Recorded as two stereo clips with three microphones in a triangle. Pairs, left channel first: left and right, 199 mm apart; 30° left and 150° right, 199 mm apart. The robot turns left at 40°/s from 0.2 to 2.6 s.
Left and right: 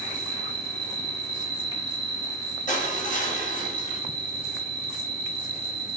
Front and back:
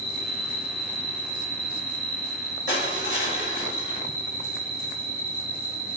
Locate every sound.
0.0 s an insect: 25° left, 1.7 m; by 6.0 s 70° right, 1.7 m
2.7 s crushing: 40° left, 0.7 m